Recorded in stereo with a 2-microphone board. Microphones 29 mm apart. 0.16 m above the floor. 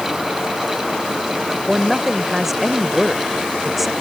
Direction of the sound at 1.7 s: 5° right (ahead or behind).